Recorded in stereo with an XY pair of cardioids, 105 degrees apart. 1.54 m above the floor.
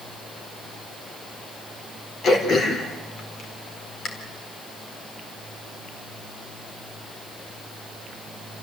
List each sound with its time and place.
2.2 s throat clearing: 55° left, 4.5 m